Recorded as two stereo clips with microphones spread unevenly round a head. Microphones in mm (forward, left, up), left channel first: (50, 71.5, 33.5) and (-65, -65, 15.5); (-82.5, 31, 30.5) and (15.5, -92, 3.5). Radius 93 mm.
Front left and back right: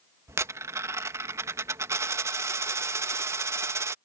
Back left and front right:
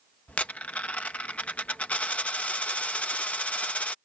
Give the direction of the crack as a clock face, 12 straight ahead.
I don't hear a crack.